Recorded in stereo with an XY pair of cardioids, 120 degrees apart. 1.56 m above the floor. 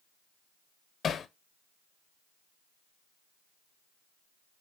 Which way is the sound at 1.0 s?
40° left.